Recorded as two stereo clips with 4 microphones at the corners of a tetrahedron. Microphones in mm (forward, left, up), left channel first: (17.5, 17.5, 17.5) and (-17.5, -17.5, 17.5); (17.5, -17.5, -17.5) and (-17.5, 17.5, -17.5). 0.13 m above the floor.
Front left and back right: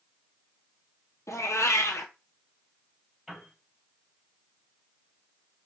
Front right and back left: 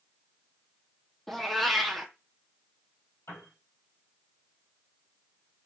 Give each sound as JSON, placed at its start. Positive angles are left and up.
{"t": 1.3, "sound": "a cat meowing", "azimuth_deg": 40, "distance_m": 0.7}
{"t": 3.3, "sound": "a piano", "azimuth_deg": -50, "distance_m": 3.0}